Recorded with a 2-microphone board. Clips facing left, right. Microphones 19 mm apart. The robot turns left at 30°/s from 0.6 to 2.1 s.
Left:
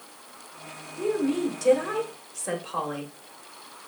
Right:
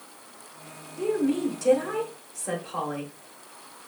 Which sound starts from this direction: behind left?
A woman speaking, at 1.0 s.